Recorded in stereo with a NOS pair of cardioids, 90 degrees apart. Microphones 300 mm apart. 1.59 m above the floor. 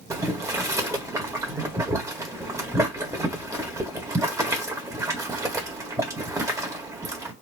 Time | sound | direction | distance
0.1 | boiling | 10° right | 1.1 m